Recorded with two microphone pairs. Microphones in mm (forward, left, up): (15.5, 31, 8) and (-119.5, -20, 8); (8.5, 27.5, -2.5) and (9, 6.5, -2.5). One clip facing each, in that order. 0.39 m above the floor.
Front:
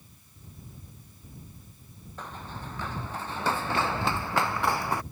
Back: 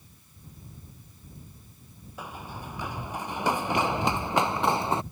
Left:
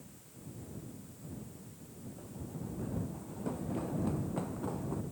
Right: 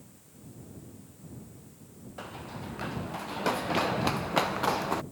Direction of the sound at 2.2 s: 80° right.